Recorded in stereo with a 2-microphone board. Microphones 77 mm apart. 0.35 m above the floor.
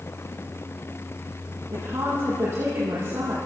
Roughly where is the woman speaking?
Right.